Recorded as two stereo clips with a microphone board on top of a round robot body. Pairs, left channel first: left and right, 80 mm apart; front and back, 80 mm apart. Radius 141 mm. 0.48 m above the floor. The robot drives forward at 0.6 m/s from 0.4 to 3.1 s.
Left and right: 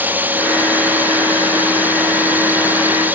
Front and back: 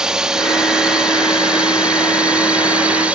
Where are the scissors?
No scissors in this recording.